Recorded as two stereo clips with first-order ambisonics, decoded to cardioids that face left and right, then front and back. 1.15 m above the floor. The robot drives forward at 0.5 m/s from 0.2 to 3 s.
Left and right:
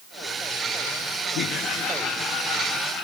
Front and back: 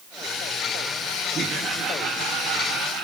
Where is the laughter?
115° left, 0.6 m; by 3.0 s 155° left, 1.2 m.